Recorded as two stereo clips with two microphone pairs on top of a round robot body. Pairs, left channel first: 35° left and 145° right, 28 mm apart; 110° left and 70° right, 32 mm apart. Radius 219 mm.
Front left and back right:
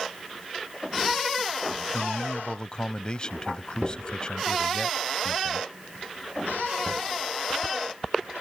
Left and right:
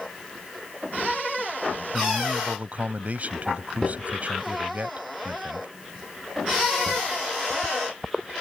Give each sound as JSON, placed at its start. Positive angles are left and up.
{"t": 1.9, "sound": "a man speaking", "azimuth_deg": -30}